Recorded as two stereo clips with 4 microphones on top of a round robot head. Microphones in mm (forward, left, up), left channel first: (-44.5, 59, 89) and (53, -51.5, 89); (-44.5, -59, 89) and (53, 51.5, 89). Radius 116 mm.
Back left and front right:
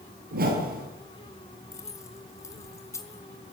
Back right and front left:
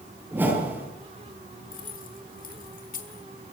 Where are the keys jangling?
160° right, 4 m.